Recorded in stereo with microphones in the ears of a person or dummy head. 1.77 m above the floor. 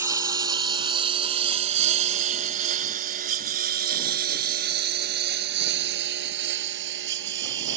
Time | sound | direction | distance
0.0 | a lawn mower | 15° right (ahead or behind) | ?